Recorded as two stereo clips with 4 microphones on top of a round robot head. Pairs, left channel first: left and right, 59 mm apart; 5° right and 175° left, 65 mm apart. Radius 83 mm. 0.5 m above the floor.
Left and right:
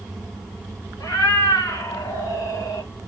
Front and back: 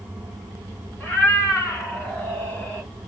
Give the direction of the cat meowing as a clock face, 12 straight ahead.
10 o'clock.